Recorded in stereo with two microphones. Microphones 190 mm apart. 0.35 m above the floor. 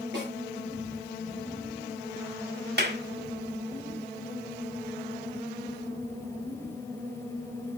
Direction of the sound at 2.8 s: 60° right (ahead or behind).